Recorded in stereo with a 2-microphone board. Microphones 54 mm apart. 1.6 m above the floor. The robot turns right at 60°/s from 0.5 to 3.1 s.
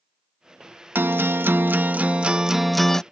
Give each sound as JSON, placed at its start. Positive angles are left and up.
{"t": 0.9, "sound": "a guitar", "azimuth_deg": -110}